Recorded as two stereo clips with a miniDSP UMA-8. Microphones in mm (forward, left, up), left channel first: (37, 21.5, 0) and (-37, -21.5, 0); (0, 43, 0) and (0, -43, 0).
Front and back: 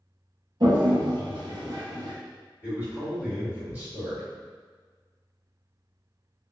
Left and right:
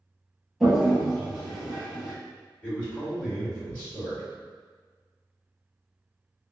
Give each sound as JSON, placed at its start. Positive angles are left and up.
{"t": 0.6, "sound": "a toilet flushing", "azimuth_deg": 180, "distance_m": 1.2}
{"t": 2.6, "sound": "a man speaking", "azimuth_deg": 155, "distance_m": 1.7}